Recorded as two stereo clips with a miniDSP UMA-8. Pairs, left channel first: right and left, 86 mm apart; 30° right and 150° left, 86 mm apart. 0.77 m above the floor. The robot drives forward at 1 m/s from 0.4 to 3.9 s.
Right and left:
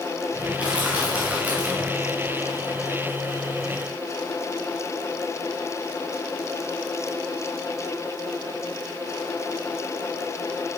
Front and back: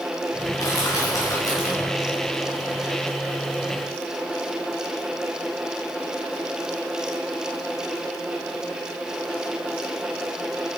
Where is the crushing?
15° left, 5.5 m; by 1.9 s 20° left, 4 m.